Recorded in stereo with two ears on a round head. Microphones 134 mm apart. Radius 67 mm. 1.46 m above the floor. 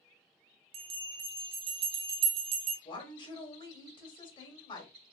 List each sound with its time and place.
0.7 s a bell: 40° right (ahead or behind), 0.6 m
2.9 s a woman speaking: 35° left (ahead or behind), 1.3 m